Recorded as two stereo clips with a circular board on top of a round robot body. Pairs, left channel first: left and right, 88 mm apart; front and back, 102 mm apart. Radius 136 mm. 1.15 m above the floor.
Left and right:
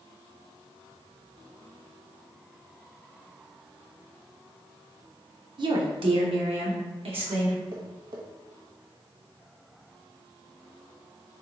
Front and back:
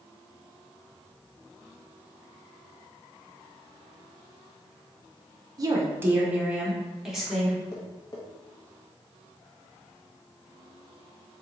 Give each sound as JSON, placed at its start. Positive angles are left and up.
{"t": 5.6, "sound": "a woman speaking", "azimuth_deg": -125, "distance_m": 0.7}
{"t": 7.7, "sound": "tapping", "azimuth_deg": -50, "distance_m": 0.6}